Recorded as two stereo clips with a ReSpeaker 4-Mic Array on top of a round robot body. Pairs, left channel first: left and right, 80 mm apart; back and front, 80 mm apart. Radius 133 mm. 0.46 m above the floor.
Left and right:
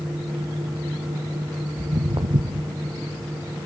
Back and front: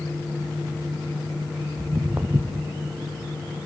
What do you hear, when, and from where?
1.8 s footsteps: 65° right, 1.6 m